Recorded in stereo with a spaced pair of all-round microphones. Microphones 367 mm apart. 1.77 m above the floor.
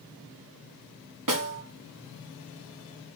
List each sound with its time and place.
1.3 s a snare drum: 55° right (ahead or behind), 1.3 m